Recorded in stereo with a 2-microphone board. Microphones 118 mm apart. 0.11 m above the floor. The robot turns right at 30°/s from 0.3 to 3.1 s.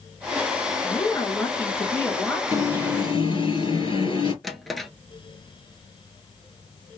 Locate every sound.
0.8 s a woman speaking: 25° left (ahead or behind), 1.1 m; by 2.4 s 10° left (ahead or behind), 1.1 m
2.5 s an alarm: 35° left (ahead or behind), 3 m; by 4.3 s 45° left (ahead or behind), 3 m
4.4 s a drawer: centre (ahead or behind), 0.7 m